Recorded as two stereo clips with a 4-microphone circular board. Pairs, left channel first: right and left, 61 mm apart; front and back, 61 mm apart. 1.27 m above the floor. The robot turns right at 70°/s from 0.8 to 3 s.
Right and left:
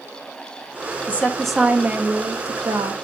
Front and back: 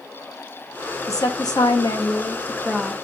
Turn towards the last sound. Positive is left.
turn(degrees=105)